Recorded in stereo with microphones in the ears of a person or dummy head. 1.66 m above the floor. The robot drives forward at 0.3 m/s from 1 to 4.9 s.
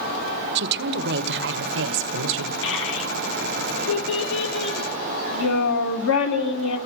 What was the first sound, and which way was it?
A woman speaking, 65° right (ahead or behind).